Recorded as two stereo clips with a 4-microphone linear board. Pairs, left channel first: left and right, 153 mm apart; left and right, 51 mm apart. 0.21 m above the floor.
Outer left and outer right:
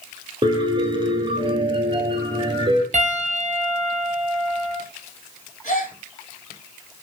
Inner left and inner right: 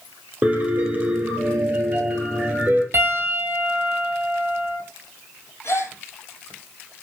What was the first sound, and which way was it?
A piano, 30° right (ahead or behind).